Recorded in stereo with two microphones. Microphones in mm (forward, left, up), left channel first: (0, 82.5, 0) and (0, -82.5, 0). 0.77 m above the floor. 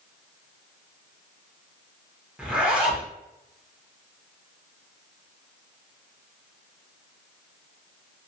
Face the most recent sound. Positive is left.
turn(degrees=-5)  # may be behind; listen again after turning